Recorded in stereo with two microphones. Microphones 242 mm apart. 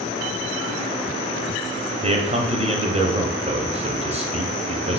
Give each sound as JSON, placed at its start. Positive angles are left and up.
{"t": 2.0, "sound": "a man speaking", "side_deg": -25, "distance_m": 0.6}